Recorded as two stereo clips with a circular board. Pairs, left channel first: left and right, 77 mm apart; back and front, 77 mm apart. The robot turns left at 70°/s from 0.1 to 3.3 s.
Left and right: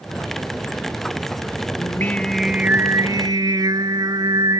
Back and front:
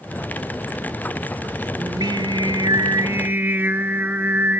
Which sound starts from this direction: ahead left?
Singing, at 1.8 s.